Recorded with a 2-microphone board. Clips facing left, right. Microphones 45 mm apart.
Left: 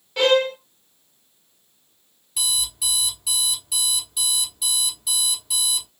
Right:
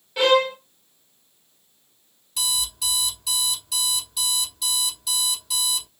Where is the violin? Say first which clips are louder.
Even; 5° right (ahead or behind), 1.5 m.